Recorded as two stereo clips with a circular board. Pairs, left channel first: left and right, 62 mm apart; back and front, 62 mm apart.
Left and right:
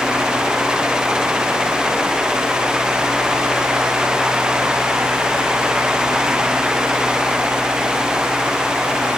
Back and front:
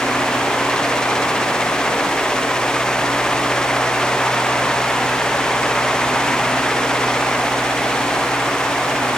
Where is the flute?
I don't hear a flute.